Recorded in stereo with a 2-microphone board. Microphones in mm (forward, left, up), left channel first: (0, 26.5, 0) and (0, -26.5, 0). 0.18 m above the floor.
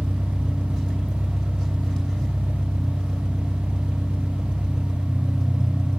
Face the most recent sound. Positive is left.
turn(degrees=5)  # may be behind; listen again after turning